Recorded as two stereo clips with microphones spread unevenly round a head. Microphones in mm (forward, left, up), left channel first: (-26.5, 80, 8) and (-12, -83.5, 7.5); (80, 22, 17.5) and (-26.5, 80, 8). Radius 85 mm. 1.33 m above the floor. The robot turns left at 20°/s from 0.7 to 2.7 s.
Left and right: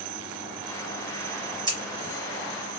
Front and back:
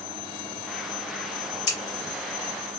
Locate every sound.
1.7 s scissors: 20° right, 1.2 m; by 1.8 s 25° right, 1.2 m